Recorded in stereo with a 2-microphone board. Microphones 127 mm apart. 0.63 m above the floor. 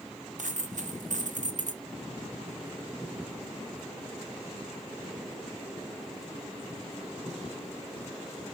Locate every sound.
0.4 s a dropped coin: 80° right, 0.5 m